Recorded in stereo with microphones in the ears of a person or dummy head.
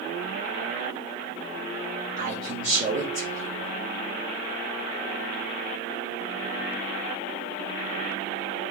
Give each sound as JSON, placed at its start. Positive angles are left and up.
{"t": 2.2, "sound": "a man speaking", "side_deg": -45, "distance_m": 2.5}